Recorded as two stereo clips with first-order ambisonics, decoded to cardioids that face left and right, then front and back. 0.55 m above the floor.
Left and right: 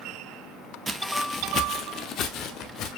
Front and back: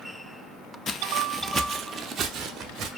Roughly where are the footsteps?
Ahead right.